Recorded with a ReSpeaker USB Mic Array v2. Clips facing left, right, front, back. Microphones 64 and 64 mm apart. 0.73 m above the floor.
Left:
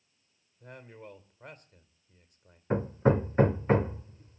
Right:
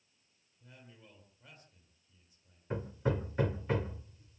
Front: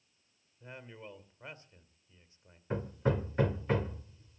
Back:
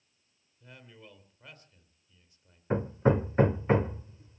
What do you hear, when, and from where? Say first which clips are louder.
0.6 s a man speaking: left 11 dB, front 4 dB; 60° left, 2.5 m
2.7 s hammering: left 9 dB, back 7 dB; 130° left, 0.5 m